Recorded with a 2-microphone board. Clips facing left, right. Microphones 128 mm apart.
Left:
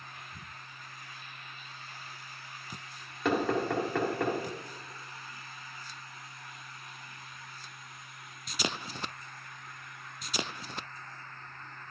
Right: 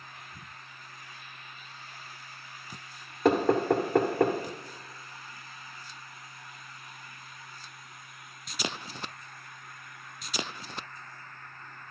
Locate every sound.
3.2 s knocking: 40° right (ahead or behind), 1.4 m